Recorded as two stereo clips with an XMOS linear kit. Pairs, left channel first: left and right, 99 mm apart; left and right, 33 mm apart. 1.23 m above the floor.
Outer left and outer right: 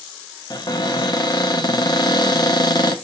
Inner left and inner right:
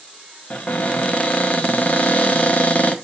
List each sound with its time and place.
0.5 s a cupboard door: 45° left (ahead or behind), 0.9 m